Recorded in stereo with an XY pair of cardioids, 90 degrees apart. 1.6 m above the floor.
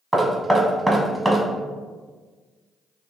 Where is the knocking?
10° right, 1.1 m.